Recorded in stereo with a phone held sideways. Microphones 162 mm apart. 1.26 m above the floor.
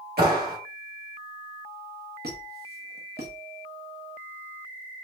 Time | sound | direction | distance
0.2 | a clap | 75° right (ahead or behind) | 2 m
2.2 | a squeak | 80° right | 1.1 m